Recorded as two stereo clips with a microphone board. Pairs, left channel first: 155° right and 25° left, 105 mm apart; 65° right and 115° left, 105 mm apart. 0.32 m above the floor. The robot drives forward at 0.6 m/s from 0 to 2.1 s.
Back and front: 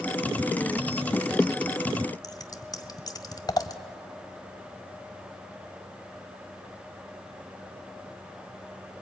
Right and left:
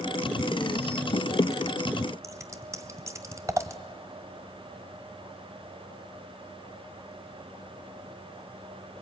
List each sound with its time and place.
2.2 s scissors: 165° left, 1.0 m